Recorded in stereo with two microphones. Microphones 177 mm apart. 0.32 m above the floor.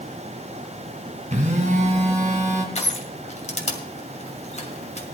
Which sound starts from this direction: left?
Crushing, at 2.8 s.